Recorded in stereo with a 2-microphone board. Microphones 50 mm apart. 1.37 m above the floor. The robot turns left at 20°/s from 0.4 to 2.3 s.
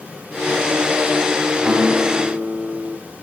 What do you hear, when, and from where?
1.6 s a guitar: 40° right (ahead or behind), 4.5 m; by 2.9 s 25° right (ahead or behind), 4.5 m